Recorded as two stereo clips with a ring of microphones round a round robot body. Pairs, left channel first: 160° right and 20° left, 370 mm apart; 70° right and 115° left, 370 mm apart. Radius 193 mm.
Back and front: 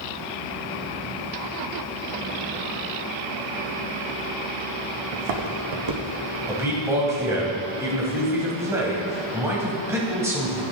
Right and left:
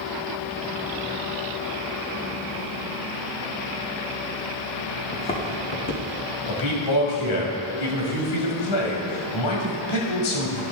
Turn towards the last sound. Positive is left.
turn(degrees=-60)